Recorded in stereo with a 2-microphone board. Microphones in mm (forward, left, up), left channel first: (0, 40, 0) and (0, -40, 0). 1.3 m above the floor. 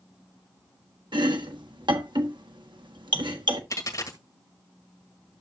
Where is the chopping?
75° right (ahead or behind), 1.3 m.